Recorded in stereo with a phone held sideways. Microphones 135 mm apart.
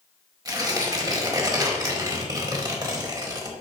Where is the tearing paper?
30° right (ahead or behind), 1.5 m.